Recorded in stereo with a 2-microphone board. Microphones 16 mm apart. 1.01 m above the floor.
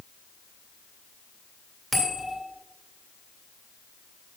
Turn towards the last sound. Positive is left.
turn(degrees=10)  # may be behind; listen again after turning